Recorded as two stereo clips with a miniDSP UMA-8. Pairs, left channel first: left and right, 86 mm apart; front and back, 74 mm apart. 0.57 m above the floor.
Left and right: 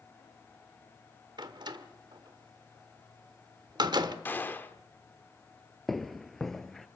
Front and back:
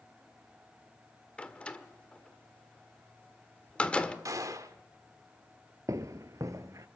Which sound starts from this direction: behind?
Footsteps, at 5.9 s.